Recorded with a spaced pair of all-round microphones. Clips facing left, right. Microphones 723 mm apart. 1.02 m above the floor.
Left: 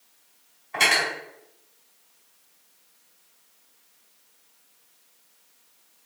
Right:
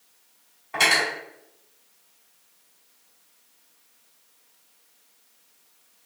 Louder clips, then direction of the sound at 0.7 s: Right 1 dB; 65° right (ahead or behind).